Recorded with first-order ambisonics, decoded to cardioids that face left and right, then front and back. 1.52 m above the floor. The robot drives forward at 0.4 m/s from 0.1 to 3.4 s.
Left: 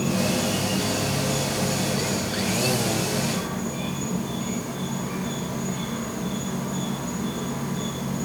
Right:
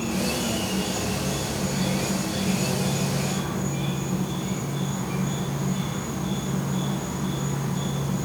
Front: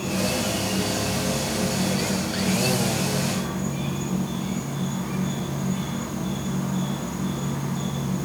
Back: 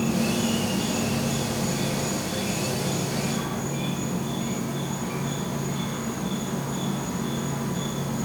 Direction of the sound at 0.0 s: 140° left.